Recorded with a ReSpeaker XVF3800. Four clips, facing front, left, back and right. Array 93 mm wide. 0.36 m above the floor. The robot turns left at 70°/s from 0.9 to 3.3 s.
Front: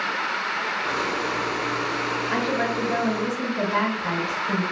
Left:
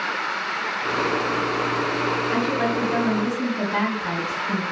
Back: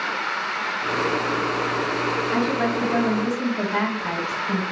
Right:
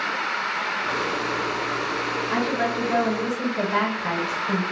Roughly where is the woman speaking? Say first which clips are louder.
Left 1 dB, back 1 dB; ahead.